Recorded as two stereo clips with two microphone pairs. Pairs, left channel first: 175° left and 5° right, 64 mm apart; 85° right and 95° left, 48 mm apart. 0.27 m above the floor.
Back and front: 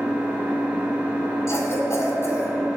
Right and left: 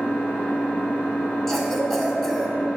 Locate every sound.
0.0 s an engine running: 75° right, 2.5 m
1.5 s a cough: 165° right, 1.5 m